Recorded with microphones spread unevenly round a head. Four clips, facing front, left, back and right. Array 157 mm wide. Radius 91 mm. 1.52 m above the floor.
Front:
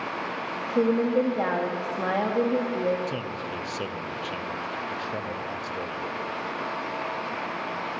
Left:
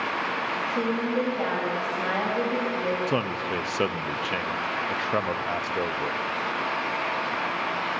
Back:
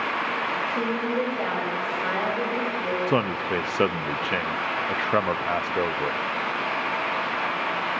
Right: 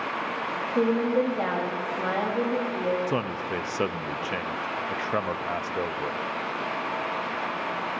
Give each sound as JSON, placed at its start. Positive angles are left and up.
{"t": 0.7, "sound": "a woman speaking", "azimuth_deg": -35, "distance_m": 3.0}
{"t": 3.1, "sound": "a man speaking", "azimuth_deg": 170, "distance_m": 0.7}